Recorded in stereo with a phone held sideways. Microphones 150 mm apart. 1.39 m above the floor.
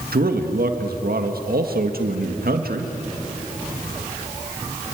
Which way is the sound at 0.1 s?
85° right.